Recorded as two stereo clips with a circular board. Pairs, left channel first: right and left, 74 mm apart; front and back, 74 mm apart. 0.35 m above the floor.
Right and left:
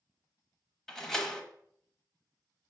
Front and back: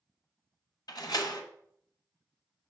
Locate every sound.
0.9 s a door slam: 5° right, 1.1 m